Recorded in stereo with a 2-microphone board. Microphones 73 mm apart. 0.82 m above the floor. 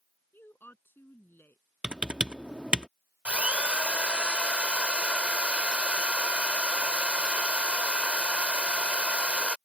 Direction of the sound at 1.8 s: 15° right (ahead or behind).